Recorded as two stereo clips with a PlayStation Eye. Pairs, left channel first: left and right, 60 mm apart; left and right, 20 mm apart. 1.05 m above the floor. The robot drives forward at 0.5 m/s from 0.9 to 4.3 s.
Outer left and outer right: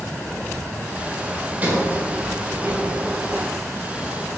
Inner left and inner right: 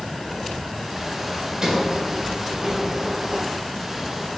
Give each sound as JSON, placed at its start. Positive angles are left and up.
{"t": 1.6, "sound": "a sliding door", "side_deg": -30, "distance_m": 4.5}